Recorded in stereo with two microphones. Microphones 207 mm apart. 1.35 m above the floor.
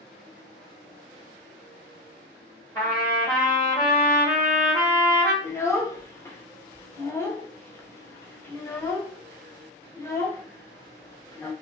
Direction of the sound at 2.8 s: 15° left (ahead or behind).